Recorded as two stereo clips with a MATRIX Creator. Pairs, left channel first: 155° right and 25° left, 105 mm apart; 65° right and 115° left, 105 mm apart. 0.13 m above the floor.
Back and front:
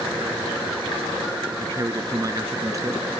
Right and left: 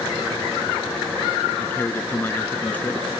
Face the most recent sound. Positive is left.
turn(degrees=-5)